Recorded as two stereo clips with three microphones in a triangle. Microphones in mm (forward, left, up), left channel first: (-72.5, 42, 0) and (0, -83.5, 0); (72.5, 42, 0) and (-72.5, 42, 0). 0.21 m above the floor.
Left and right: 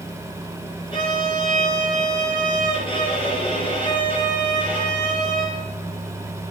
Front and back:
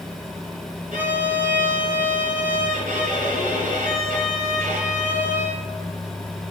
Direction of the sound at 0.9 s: 170° left.